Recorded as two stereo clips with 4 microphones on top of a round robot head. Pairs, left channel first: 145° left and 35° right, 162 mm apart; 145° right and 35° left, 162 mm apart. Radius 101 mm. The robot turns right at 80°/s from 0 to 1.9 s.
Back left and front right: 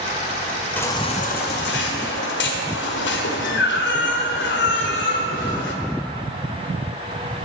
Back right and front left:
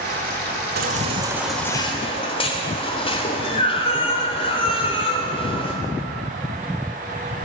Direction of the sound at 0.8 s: 65° left.